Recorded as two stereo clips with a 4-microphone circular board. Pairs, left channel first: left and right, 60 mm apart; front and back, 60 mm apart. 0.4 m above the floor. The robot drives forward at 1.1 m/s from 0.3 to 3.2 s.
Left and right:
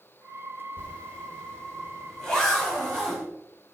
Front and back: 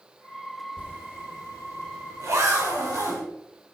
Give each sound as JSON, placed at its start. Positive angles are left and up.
{"t": 0.8, "sound": "a zipper", "azimuth_deg": 145, "distance_m": 1.5}